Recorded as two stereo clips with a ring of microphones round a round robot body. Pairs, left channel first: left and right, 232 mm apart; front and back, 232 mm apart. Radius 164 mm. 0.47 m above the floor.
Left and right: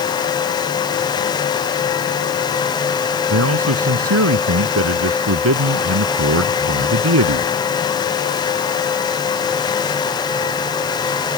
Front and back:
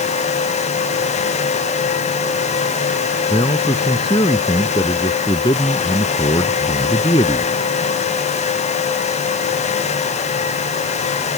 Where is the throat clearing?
No throat clearing in this recording.